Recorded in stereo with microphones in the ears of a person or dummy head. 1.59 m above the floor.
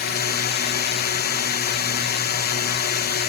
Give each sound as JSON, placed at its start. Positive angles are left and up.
{"t": 0.0, "sound": "a drone", "side_deg": 50}